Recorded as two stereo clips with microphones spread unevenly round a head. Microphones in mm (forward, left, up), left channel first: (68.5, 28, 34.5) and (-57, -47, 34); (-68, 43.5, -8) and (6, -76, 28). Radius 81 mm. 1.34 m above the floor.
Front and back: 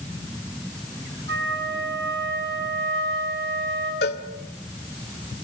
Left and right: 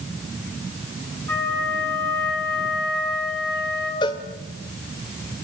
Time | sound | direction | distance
1.3 | a flute | 165° right | 9 m
4.0 | a cowbell | 50° left | 1.8 m